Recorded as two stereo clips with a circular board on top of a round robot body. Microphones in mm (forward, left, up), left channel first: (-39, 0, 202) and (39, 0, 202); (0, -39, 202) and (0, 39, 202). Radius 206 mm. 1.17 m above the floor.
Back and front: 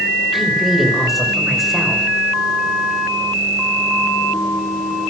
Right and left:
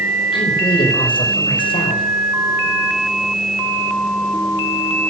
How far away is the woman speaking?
About 5 m.